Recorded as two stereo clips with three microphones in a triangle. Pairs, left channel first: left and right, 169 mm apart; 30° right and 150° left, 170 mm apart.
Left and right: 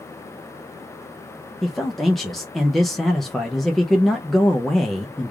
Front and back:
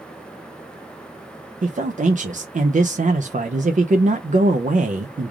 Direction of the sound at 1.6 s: Straight behind.